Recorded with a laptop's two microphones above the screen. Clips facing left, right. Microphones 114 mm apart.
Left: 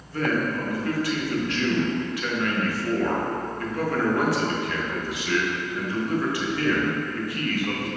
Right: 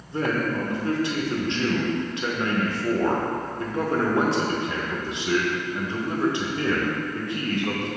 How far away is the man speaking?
About 0.7 m.